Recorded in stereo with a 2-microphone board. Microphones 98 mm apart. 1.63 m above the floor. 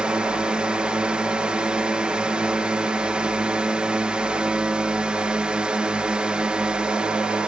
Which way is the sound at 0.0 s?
10° right (ahead or behind).